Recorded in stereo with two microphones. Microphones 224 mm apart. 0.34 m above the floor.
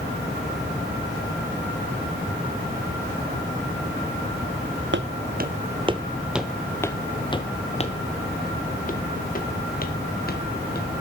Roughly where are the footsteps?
Right.